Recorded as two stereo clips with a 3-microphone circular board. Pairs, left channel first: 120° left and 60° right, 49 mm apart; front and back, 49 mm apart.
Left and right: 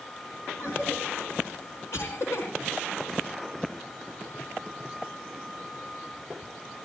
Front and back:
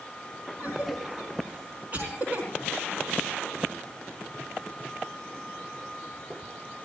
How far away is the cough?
About 4 m.